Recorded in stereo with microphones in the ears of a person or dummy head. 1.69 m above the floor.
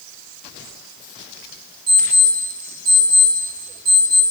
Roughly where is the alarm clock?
Right.